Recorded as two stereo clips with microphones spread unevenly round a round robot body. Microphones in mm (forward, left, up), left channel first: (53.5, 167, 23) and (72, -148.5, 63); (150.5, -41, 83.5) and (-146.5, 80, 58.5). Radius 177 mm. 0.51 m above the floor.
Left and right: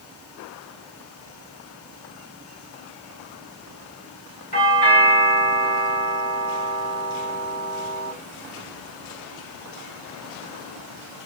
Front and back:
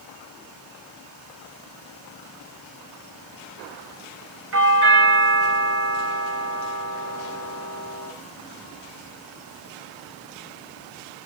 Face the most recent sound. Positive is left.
turn(degrees=145)